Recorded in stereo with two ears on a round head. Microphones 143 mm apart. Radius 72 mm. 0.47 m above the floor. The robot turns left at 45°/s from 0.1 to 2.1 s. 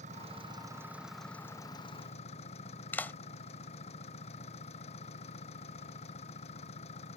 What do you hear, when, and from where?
0.0 s an engine running: 130° right; by 7.2 s 140° left
2.9 s a clap: 10° left (ahead or behind)